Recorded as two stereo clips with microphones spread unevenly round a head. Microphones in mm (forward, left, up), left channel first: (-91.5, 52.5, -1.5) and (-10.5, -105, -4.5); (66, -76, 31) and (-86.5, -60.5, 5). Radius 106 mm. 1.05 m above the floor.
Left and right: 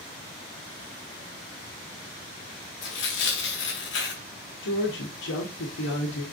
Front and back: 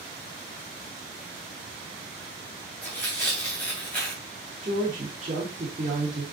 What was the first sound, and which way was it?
Tearing paper, 75° left.